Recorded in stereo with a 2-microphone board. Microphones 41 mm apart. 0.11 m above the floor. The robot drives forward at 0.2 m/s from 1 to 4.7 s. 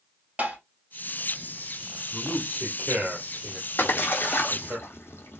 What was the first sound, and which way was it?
Tapping, 40° right (ahead or behind).